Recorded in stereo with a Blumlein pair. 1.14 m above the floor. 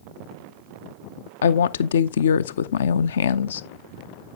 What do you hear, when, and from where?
1.4 s a woman speaking: 65° left, 0.5 m